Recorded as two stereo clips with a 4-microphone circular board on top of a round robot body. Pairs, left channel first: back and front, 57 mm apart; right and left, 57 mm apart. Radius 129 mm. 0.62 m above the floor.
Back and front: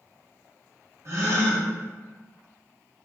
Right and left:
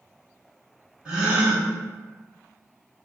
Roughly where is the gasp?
Ahead.